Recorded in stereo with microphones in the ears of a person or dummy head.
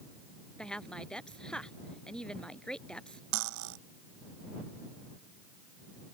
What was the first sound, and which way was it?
A woman speaking, 5° left (ahead or behind).